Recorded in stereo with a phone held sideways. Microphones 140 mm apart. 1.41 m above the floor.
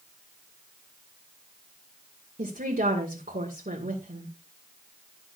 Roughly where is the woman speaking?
Right.